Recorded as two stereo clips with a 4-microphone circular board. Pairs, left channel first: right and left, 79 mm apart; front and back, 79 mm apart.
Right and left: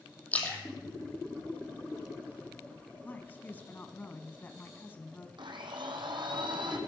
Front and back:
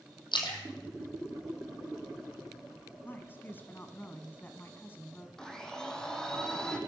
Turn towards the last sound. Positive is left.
turn(degrees=80)